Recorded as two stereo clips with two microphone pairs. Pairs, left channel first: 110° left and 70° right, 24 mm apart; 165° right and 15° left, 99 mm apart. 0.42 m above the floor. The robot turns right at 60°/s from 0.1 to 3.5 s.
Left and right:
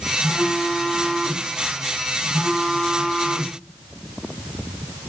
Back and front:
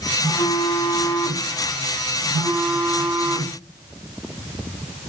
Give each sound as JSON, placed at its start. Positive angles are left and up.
{"t": 0.2, "sound": "a phone buzzing", "azimuth_deg": -150, "distance_m": 3.0}